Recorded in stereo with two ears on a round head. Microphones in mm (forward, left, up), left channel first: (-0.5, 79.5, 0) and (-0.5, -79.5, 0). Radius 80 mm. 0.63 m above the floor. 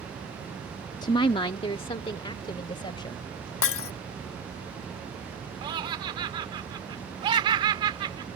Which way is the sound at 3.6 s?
85° left.